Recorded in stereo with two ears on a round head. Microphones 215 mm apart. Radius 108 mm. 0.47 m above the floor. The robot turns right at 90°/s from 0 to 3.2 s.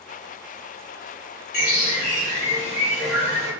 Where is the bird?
40° left, 1.4 m; by 3.5 s 170° right, 1.4 m.